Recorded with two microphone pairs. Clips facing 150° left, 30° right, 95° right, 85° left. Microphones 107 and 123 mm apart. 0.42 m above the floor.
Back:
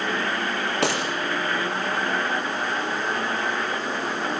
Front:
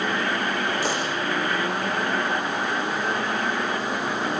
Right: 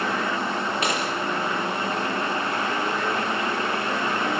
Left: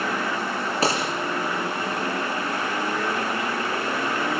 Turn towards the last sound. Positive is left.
turn(degrees=140)